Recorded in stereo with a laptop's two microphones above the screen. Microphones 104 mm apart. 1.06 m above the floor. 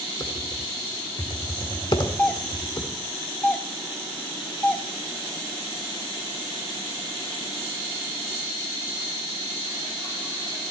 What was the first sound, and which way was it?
Typing on a keyboard, 50° left (ahead or behind).